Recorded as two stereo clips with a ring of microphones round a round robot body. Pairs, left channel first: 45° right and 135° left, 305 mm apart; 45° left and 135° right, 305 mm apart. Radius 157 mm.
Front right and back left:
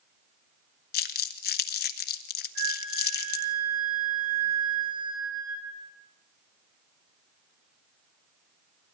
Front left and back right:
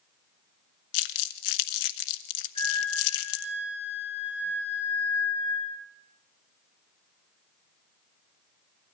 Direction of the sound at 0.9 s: 15° left.